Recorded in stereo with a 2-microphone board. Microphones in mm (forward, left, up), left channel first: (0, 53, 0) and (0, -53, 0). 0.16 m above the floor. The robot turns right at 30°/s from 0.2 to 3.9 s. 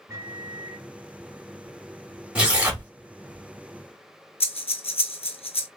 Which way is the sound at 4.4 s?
75° left (ahead or behind).